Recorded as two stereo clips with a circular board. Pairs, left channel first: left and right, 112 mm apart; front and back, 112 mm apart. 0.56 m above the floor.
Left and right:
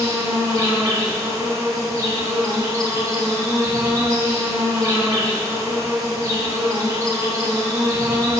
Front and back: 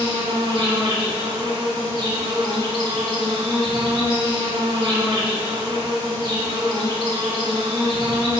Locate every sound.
0.0 s an insect: 145° right, 1.5 m